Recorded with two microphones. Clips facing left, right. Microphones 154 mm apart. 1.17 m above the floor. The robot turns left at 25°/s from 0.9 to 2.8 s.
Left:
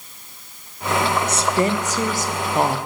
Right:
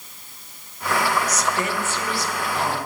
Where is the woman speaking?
150° left, 0.6 m; by 2.8 s 115° left, 0.6 m.